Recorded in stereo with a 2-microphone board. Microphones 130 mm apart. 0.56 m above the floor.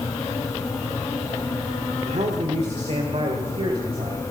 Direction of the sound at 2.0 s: 60° right (ahead or behind).